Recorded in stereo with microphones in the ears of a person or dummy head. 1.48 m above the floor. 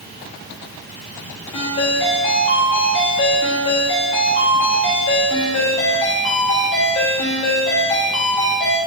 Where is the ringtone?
30° left (ahead or behind), 1.1 m.